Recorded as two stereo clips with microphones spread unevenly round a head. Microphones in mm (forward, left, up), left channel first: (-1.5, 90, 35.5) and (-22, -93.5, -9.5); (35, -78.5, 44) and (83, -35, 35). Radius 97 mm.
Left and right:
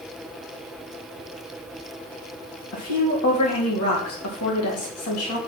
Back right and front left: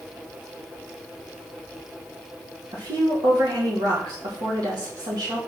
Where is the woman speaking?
70° left, 3.5 m.